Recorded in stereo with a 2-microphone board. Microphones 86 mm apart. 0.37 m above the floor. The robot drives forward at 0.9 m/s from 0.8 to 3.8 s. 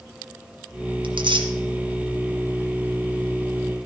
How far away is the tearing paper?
About 1.6 m.